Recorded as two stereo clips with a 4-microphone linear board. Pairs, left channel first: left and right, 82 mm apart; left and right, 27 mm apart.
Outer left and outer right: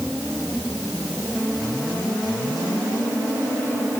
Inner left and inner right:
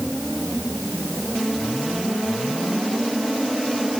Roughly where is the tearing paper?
I don't hear tearing paper.